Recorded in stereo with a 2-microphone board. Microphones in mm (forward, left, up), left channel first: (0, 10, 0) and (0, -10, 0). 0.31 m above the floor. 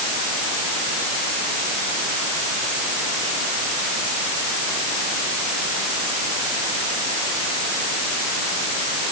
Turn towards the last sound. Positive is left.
No sound to turn to.